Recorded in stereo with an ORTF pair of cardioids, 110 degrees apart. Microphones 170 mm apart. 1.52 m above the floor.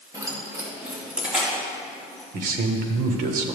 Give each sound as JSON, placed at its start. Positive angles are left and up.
{"t": 0.1, "sound": "keys jangling", "azimuth_deg": -20, "distance_m": 1.7}
{"t": 2.3, "sound": "a man speaking", "azimuth_deg": -55, "distance_m": 1.3}